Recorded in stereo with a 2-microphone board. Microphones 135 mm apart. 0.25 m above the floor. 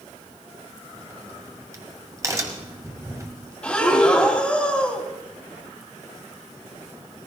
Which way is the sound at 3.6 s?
10° left (ahead or behind).